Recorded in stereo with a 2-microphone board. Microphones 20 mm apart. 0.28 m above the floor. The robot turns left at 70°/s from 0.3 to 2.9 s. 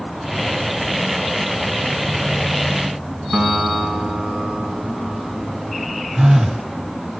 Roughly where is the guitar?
Right.